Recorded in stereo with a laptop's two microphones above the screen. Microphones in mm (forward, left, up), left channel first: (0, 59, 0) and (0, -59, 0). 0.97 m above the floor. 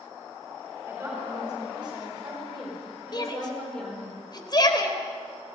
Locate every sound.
0.9 s a woman speaking: 15° right (ahead or behind), 7 m; by 4.1 s 10° left (ahead or behind), 4 m
3.1 s a shout: 40° left (ahead or behind), 4 m